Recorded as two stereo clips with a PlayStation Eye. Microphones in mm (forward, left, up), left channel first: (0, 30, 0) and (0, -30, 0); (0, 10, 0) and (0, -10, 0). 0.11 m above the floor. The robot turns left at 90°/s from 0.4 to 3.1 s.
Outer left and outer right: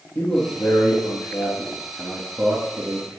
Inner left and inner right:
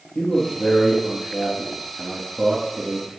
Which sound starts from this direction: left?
A man speaking, at 0.1 s.